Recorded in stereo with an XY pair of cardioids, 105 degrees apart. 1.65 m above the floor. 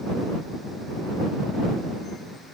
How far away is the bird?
I don't hear a bird.